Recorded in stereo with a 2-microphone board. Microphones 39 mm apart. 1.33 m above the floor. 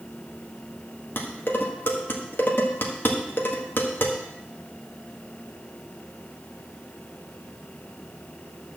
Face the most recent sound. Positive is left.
turn(degrees=65)  # may be behind; listen again after turning